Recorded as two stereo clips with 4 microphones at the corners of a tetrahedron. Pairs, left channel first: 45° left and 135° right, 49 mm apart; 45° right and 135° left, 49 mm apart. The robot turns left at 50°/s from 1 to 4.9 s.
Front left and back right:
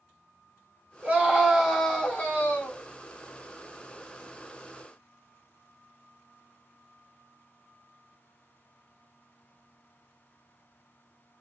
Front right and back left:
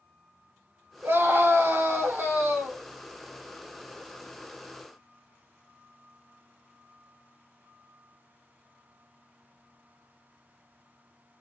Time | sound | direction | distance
1.0 | a scream | 165° left | 2.5 m